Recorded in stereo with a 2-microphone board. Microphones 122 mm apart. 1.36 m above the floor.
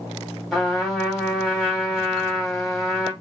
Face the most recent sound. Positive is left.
turn(degrees=0)  # may be behind; listen again after turning